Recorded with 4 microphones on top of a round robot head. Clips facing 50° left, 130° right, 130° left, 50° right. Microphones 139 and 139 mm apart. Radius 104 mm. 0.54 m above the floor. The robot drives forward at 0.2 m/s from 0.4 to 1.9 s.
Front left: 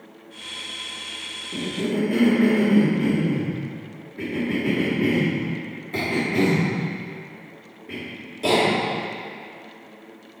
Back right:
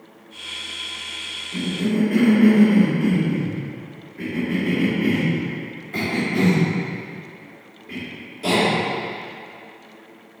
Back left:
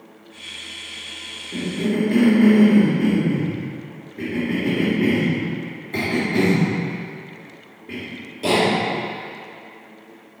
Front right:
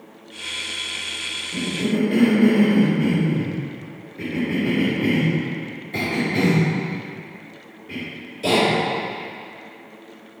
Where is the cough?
110° left, 2 m.